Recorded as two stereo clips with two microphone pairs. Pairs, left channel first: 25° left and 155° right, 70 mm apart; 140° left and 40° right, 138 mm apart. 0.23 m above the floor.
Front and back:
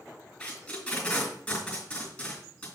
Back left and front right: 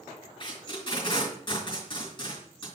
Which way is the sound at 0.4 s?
95° left.